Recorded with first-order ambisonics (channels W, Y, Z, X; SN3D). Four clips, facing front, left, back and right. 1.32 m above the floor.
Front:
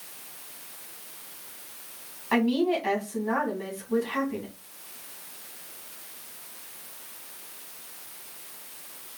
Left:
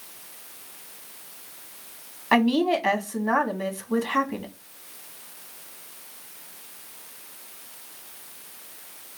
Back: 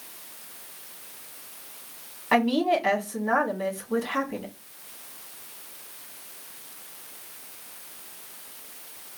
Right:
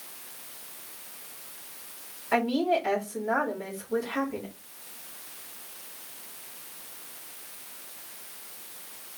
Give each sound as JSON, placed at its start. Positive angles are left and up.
{"t": 2.3, "sound": "a woman speaking", "azimuth_deg": 110, "distance_m": 1.9}